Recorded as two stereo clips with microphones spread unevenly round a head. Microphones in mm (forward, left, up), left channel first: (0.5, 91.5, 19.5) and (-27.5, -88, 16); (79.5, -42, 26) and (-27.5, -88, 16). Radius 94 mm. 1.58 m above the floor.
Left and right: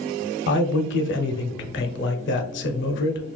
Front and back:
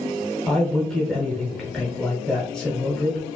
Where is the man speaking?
110° left, 0.6 m.